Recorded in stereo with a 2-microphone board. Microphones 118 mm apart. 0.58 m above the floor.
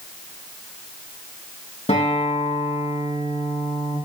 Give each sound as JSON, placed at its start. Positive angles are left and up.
{"t": 1.9, "sound": "a guitar", "side_deg": 65, "distance_m": 6.0}